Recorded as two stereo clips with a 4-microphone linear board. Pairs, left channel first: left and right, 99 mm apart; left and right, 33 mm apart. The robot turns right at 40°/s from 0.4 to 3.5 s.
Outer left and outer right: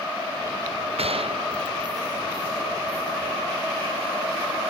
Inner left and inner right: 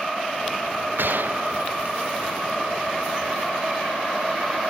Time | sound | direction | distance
1.0 | a gunshot | 85° right | ?